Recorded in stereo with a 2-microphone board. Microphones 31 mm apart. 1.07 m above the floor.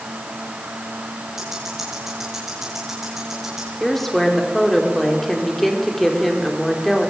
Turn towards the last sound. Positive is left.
turn(degrees=10)  # may be behind; listen again after turning